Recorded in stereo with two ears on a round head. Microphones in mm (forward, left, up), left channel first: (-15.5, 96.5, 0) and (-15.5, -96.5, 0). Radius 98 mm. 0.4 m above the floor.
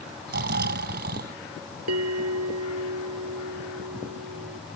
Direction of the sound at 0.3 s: 50° right (ahead or behind).